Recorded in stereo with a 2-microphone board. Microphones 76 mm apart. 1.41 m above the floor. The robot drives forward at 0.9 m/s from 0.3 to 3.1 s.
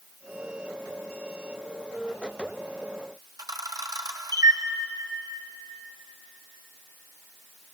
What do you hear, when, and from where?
3.4 s a camera shutter: 55° right (ahead or behind), 0.8 m